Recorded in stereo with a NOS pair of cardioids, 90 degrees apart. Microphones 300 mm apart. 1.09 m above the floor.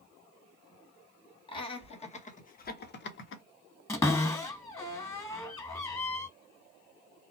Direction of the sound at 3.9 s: 10° left.